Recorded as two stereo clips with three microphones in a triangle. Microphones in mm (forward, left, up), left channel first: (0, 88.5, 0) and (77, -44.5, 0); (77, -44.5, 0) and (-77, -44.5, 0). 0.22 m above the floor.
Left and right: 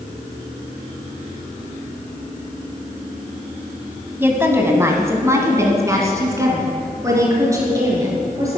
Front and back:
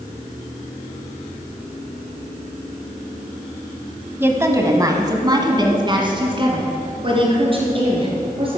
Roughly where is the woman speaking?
Behind right.